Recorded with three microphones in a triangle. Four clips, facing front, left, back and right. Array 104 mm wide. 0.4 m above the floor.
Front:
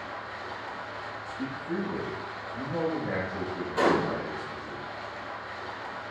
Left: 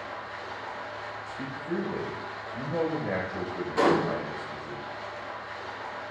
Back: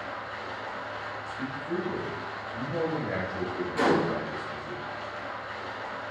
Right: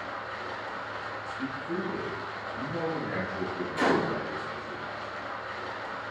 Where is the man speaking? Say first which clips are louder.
Left 1 dB, front 1 dB; 85° left, 1.4 m.